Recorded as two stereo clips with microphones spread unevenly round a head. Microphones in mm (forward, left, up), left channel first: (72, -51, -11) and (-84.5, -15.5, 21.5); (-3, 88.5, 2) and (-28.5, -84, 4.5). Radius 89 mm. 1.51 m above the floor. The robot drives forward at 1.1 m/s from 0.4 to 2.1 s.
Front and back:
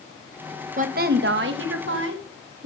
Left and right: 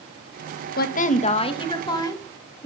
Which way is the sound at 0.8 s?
120° left.